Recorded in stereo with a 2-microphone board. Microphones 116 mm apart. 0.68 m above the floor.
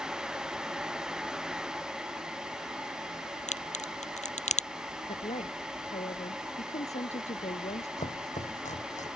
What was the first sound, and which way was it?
A crack, 75° left (ahead or behind).